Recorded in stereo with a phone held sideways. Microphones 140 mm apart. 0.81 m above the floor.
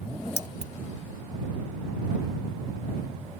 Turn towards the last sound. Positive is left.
turn(degrees=-55)  # may be behind; listen again after turning